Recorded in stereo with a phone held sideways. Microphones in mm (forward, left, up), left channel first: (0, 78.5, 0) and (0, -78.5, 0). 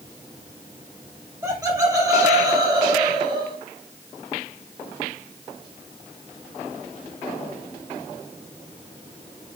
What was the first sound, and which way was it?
Laughter, 20° right (ahead or behind).